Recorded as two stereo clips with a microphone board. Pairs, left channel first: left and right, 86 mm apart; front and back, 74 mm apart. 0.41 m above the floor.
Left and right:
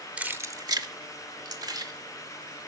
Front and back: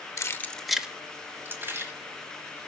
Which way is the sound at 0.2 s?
20° right.